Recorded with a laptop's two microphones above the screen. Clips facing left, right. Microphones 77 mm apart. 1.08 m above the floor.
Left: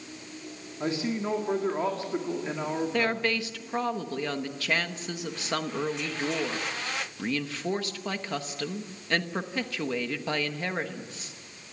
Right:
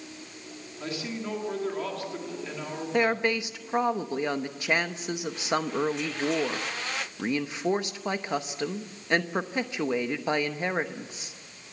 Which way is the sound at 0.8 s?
30° left (ahead or behind).